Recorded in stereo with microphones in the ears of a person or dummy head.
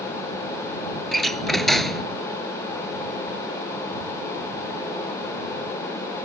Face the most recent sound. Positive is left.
turn(degrees=0)  # may be behind; listen again after turning